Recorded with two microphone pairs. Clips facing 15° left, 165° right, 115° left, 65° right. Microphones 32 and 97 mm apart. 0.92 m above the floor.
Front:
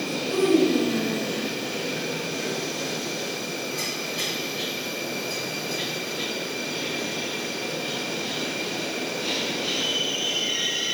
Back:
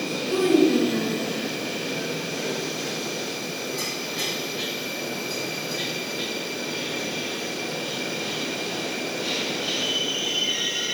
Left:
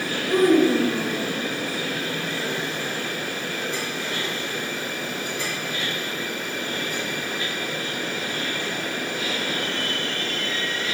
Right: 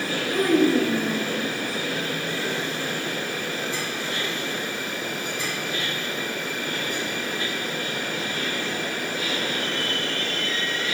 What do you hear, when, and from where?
0.3 s a child speaking: 105° left, 8 m; by 1.3 s 100° left, 8 m